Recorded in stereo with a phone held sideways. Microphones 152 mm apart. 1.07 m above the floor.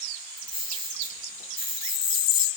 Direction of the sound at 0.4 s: 75° left (ahead or behind).